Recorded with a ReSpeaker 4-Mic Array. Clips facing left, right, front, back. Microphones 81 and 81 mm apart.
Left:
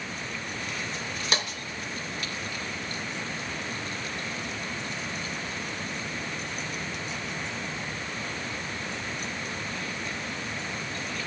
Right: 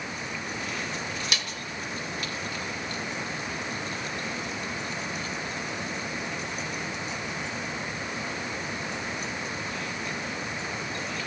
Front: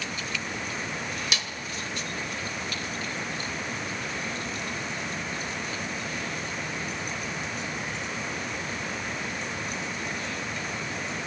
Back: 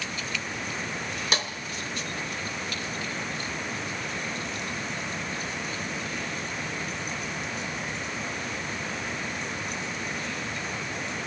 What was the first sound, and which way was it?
A snare drum, 135° left.